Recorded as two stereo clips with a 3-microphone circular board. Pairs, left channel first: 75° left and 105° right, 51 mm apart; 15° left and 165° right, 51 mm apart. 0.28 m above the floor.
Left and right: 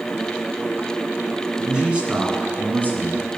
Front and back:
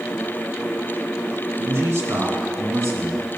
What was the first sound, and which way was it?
A man speaking, straight behind.